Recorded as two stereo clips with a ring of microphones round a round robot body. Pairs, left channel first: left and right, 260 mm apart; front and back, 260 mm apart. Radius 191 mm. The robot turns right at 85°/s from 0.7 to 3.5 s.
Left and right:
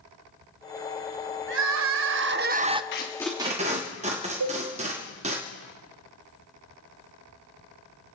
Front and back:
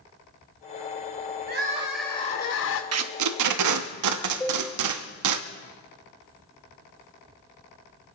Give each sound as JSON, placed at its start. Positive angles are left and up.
{"t": 1.5, "sound": "crying", "azimuth_deg": -135, "distance_m": 0.6}
{"t": 2.9, "sound": "tape being pulled", "azimuth_deg": 150, "distance_m": 0.9}
{"t": 4.4, "sound": "a cowbell", "azimuth_deg": -85, "distance_m": 3.5}